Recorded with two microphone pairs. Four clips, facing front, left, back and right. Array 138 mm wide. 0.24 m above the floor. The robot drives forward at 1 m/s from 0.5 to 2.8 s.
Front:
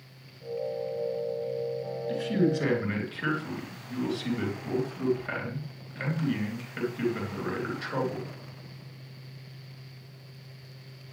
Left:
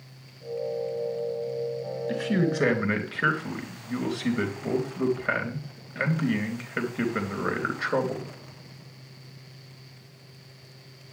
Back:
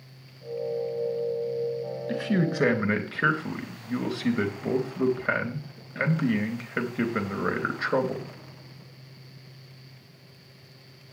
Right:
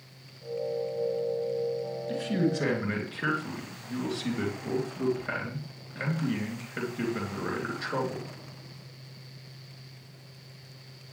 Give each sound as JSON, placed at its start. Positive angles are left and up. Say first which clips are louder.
{"t": 2.1, "sound": "a man speaking", "louder": "left 2 dB, front 1 dB", "azimuth_deg": 150, "distance_m": 3.0}